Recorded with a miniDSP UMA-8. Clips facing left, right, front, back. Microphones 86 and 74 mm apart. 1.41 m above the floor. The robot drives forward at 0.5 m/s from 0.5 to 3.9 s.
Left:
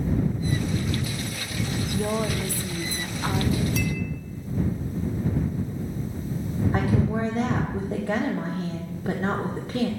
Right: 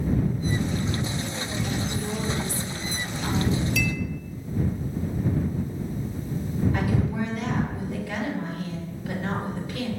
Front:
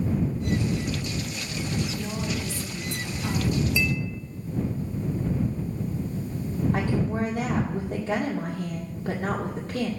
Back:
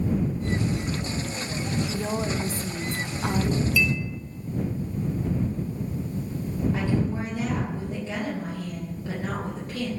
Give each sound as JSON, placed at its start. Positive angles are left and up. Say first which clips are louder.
{"t": 1.9, "sound": "a woman speaking", "louder": "left 3 dB, back 3 dB", "azimuth_deg": 120, "distance_m": 1.0}
{"t": 3.8, "sound": "a clink", "louder": "even, back 2 dB", "azimuth_deg": 55, "distance_m": 0.9}
{"t": 6.7, "sound": "a woman speaking", "louder": "left 2 dB, even", "azimuth_deg": 55, "distance_m": 2.0}